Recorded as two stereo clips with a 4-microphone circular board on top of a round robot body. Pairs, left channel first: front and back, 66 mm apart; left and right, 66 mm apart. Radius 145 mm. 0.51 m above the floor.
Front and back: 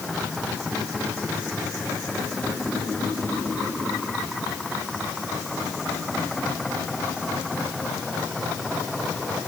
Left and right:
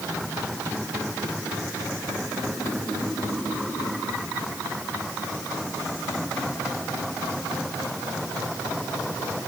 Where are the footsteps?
No footsteps in this recording.